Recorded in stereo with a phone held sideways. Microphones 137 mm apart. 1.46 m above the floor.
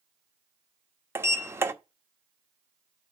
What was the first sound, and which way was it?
A sliding door, 20° right (ahead or behind).